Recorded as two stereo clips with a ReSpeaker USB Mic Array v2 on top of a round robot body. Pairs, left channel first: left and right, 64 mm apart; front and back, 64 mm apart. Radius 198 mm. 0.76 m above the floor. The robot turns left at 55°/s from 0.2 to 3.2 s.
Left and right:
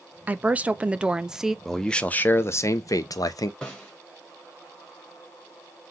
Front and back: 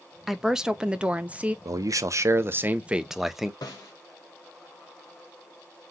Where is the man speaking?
Straight behind, 0.9 m; by 3.5 s 95° left, 0.9 m.